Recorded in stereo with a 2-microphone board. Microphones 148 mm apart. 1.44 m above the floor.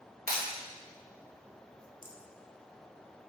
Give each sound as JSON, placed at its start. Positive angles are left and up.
{"t": 0.3, "sound": "breaking glass", "side_deg": -75, "distance_m": 3.0}
{"t": 2.0, "sound": "a rattle", "side_deg": 65, "distance_m": 0.9}